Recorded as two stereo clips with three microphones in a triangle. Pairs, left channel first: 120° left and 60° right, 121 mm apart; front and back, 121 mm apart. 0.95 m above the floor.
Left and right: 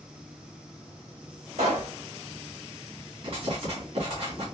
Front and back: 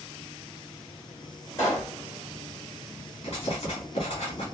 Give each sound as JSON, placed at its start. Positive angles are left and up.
{"t": 1.6, "sound": "a pop", "azimuth_deg": -55, "distance_m": 2.0}
{"t": 3.2, "sound": "writing", "azimuth_deg": -35, "distance_m": 1.8}